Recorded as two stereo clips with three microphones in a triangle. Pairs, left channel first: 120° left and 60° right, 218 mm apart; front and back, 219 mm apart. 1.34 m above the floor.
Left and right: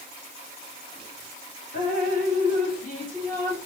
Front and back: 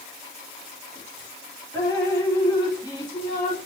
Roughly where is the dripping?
Left.